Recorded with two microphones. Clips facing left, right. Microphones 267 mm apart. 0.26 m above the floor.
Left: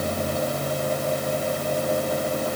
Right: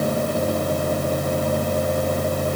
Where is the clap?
I don't hear a clap.